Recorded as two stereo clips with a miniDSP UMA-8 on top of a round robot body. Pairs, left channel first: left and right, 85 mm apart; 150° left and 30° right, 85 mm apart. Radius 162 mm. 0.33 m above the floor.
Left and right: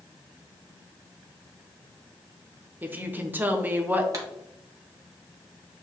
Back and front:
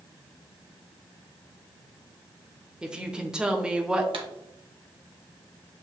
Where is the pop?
40° right, 0.9 m.